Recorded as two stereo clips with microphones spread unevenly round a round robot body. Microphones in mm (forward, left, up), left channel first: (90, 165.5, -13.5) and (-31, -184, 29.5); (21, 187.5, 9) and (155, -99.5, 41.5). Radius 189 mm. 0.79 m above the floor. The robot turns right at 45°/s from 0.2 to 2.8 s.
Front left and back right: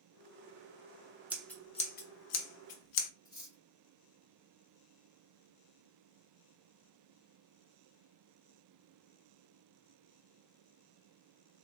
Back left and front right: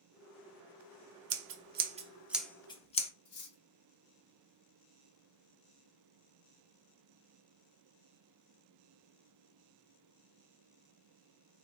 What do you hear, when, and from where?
1.3 s scissors: 25° right, 0.5 m; by 3.1 s 40° left, 0.5 m
3.2 s cutlery clinking: 140° left, 1.2 m